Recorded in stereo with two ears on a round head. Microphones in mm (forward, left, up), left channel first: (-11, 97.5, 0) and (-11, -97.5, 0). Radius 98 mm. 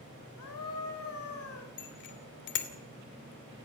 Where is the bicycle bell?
60° left (ahead or behind), 2.5 m.